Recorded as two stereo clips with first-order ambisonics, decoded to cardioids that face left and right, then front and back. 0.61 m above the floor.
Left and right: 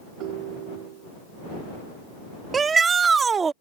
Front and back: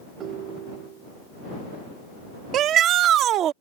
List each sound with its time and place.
0.2 s a ringtone: 125° right
2.5 s a shout: 155° right